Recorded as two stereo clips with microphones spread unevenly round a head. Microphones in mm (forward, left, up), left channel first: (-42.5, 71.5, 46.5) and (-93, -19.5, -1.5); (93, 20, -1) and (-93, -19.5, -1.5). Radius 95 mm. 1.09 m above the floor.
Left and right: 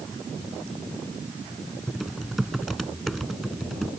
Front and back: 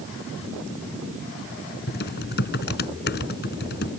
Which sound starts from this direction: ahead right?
Typing on a keyboard, at 1.9 s.